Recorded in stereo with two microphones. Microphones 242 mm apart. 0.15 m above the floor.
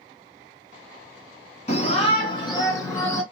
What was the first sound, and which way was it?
A shout, 25° left (ahead or behind).